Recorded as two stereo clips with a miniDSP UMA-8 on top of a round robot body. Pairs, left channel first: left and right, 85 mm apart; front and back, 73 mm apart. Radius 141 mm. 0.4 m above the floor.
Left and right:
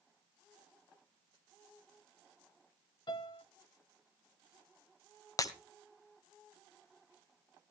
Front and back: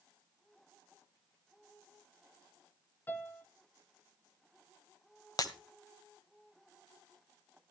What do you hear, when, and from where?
3.1 s a piano: 65° left, 2 m
5.4 s breaking glass: 35° left, 1.1 m